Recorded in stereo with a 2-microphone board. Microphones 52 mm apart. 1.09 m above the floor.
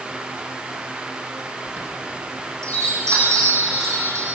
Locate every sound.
1.7 s a chime: 85° right, 7.5 m